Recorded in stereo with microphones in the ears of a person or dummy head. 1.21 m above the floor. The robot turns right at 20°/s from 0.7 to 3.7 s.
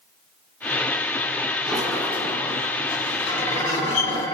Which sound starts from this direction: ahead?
A sliding door, at 1.7 s.